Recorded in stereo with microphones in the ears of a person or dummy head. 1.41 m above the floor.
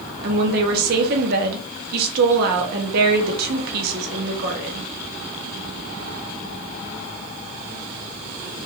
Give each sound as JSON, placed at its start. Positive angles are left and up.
{"t": 0.2, "sound": "a woman speaking", "side_deg": -50, "distance_m": 0.6}